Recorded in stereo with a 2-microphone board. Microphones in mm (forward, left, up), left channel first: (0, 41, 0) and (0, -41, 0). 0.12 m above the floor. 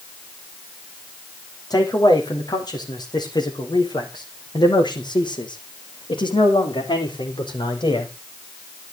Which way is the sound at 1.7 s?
55° left (ahead or behind).